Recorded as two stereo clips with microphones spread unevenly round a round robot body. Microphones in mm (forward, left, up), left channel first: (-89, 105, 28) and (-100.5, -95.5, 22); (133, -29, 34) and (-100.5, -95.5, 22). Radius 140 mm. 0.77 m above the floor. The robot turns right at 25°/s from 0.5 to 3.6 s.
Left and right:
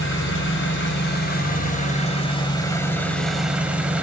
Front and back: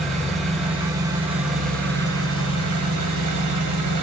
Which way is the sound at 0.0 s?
105° left.